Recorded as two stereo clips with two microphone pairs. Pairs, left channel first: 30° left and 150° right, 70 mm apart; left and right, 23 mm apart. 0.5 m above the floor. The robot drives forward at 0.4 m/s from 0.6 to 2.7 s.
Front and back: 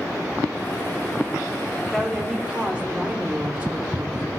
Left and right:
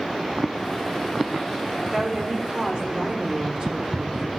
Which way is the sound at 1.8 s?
70° right.